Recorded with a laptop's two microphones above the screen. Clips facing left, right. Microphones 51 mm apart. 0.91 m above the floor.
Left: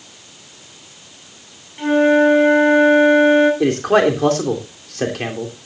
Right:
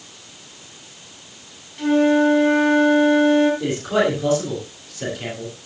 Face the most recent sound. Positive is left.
turn(degrees=75)  # may be behind; listen again after turning